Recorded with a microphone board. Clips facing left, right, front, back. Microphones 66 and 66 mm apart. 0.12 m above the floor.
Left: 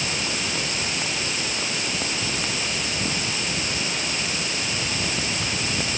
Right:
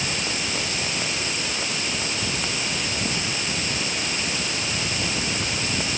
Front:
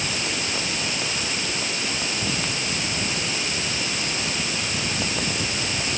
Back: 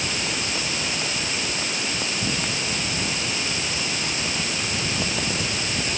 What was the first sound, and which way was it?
Only background noise.